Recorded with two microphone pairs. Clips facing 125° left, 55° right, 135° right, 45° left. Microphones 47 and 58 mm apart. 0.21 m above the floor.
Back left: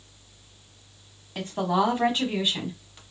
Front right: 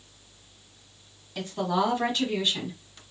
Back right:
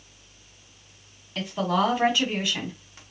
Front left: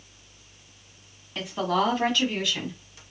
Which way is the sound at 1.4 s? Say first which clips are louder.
Back left 2 dB, back right 1 dB; 125° left.